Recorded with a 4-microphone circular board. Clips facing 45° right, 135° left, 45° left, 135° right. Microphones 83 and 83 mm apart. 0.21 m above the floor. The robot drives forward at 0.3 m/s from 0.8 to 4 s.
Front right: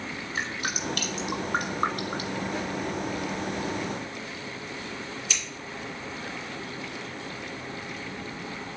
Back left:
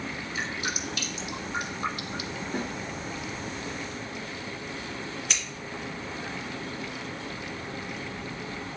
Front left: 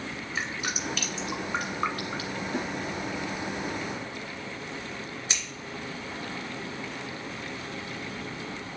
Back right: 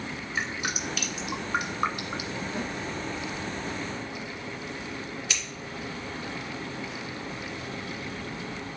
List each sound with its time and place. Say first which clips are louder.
0.3 s dripping: front right 2 dB, back right 1 dB; 45° right, 1.5 m; by 2.4 s 70° right, 1.3 m
2.5 s a snare drum: even, front left 3 dB; 90° left, 1.4 m; by 2.7 s 95° left, 1.4 m
5.3 s scissors: back left 2 dB, front left 1 dB; 100° left, 2.5 m